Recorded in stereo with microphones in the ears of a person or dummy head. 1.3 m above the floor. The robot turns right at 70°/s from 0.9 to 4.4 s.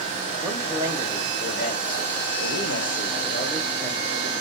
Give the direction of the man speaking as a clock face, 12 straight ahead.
1 o'clock.